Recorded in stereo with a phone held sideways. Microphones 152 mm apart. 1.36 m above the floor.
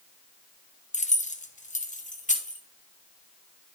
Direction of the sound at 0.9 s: 45° left (ahead or behind).